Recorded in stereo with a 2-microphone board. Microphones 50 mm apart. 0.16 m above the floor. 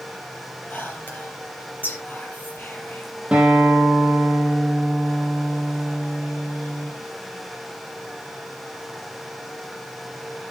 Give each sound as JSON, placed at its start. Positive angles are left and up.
{"t": 0.7, "sound": "whispering", "side_deg": 35, "distance_m": 5.0}
{"t": 3.3, "sound": "a guitar", "side_deg": -20, "distance_m": 5.5}